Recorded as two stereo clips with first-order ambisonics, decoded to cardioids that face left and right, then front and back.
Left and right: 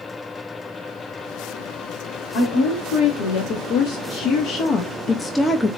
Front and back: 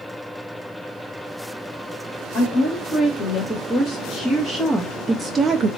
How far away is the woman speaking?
About 1.7 m.